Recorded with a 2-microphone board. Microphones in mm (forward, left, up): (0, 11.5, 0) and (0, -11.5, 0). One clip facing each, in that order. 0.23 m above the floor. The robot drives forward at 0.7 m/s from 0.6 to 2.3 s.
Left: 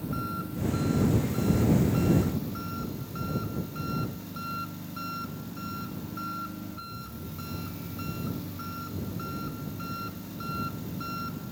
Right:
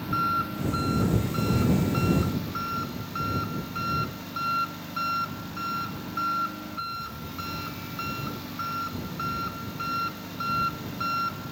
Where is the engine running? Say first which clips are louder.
Right 8 dB; 40° right (ahead or behind); by 11.5 s 35° right (ahead or behind).